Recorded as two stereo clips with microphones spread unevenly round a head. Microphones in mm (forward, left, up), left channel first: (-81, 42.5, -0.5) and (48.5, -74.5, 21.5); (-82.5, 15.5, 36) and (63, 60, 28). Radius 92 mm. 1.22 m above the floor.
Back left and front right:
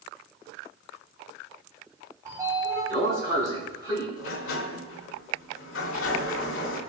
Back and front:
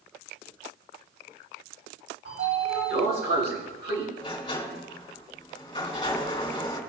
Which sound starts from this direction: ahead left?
A sliding door, at 2.2 s.